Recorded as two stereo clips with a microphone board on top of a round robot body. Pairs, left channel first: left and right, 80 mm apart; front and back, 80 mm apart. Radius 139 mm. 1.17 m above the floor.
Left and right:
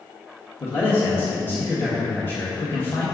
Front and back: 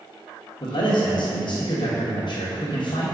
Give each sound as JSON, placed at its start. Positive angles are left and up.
{"t": 0.6, "sound": "a man speaking", "azimuth_deg": 30, "distance_m": 1.6}